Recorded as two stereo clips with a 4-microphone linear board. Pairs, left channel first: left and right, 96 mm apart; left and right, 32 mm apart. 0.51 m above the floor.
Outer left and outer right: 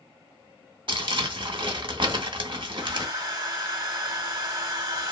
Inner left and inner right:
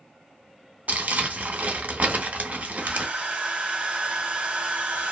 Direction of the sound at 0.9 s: 60° right (ahead or behind).